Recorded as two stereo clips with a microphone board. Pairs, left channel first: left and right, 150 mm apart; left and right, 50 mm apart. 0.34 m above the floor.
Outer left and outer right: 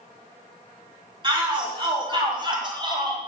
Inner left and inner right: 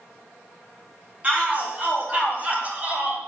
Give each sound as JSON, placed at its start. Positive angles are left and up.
{"t": 1.2, "sound": "a shout", "side_deg": -30, "distance_m": 4.0}